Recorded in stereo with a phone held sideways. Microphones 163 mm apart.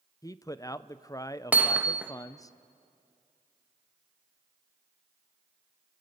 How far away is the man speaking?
About 0.5 m.